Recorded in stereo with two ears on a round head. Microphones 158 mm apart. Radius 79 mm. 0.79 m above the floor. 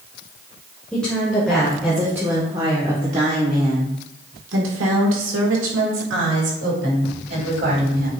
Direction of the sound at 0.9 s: 5° left (ahead or behind).